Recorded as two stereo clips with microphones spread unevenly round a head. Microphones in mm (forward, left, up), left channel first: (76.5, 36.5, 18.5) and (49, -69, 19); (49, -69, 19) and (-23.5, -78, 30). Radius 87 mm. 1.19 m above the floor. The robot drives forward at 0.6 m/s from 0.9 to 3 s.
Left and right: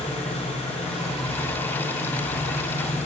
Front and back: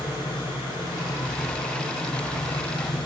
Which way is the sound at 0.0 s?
55° left.